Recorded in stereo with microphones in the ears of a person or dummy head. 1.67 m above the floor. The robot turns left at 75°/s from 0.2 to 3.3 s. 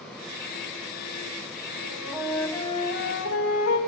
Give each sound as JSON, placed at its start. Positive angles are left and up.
{"t": 1.8, "sound": "a flute", "azimuth_deg": -140, "distance_m": 2.5}